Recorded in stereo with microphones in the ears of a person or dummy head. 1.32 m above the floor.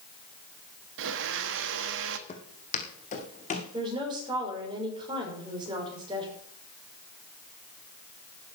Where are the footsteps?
40° left (ahead or behind), 3 m; by 3.6 s 50° left (ahead or behind), 4.5 m.